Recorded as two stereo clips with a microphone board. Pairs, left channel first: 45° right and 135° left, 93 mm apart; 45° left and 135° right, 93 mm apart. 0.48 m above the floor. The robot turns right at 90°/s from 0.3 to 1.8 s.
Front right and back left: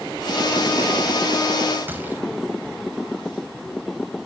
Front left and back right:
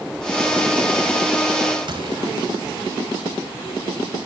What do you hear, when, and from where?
1.9 s a gunshot: 155° right, 3 m